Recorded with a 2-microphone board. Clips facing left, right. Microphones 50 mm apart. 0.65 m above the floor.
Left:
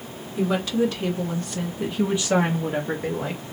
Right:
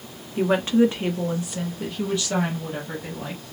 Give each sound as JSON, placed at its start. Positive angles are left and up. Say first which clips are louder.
{"t": 0.4, "sound": "a woman speaking", "louder": "right 4 dB", "side_deg": -45, "distance_m": 1.0}